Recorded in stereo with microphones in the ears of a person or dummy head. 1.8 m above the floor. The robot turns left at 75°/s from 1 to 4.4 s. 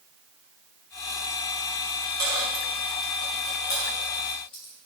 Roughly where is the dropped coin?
Centre.